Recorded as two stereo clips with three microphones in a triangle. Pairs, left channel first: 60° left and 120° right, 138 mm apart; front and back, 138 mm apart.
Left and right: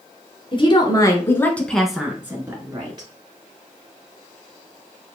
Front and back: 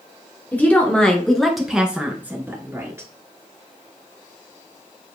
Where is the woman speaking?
75° left, 1.4 m; by 3.1 s 125° right, 1.4 m.